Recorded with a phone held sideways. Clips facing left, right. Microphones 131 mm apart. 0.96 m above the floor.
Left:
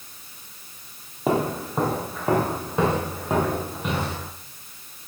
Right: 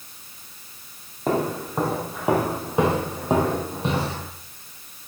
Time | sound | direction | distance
1.3 | footsteps | 10° left (ahead or behind) | 1.7 m